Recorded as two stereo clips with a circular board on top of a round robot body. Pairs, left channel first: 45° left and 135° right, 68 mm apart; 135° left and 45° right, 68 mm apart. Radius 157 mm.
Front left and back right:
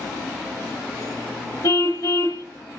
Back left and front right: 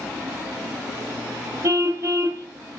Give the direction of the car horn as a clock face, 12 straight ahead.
12 o'clock.